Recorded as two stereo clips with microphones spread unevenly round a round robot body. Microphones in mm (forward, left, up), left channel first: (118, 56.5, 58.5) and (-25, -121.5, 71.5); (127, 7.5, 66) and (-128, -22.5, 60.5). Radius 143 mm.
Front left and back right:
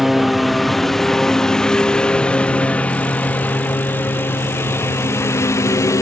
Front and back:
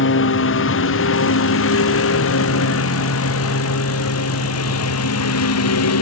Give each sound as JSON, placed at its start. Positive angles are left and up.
{"t": 0.0, "sound": "a lawn mower", "azimuth_deg": -40}